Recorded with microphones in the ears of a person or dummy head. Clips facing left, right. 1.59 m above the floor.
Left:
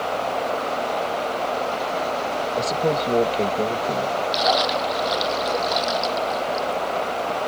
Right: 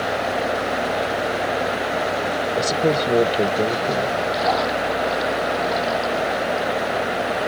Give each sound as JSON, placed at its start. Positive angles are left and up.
{"t": 2.6, "sound": "a man speaking", "side_deg": -20}
{"t": 4.3, "sound": "a splash", "side_deg": 35}